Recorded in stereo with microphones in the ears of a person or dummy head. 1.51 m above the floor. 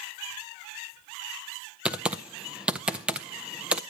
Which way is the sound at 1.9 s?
5° right (ahead or behind).